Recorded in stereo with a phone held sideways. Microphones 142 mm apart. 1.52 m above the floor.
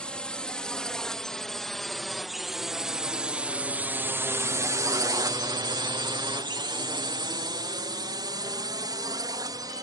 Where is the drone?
10° left (ahead or behind); by 9.8 s 30° right (ahead or behind).